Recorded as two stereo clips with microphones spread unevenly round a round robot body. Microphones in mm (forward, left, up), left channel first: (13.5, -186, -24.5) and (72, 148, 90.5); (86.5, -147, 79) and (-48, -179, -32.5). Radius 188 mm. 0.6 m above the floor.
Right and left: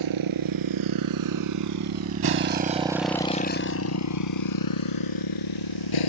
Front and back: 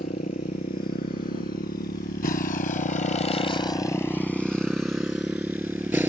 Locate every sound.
0.0 s a motorcycle: 60° left; by 6.1 s 85° right